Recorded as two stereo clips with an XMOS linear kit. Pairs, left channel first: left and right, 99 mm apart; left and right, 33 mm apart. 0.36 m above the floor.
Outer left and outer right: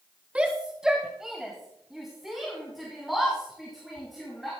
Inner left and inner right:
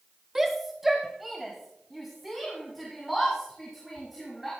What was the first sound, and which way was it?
A shout, 10° right (ahead or behind).